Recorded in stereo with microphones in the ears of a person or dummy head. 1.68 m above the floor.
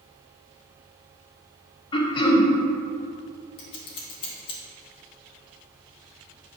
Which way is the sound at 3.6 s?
30° left (ahead or behind).